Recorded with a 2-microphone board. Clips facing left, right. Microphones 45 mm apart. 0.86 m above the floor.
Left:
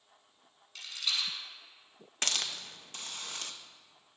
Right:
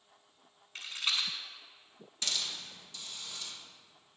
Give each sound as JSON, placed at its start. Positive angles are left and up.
{"t": 0.8, "sound": "a rattle", "side_deg": -35, "distance_m": 1.5}
{"t": 2.2, "sound": "a hiss", "side_deg": 55, "distance_m": 0.6}